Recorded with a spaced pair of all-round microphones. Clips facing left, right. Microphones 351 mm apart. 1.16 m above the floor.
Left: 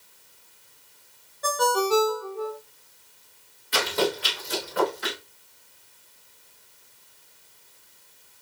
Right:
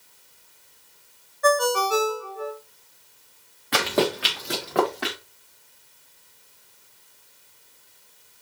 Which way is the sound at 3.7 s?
75° right (ahead or behind).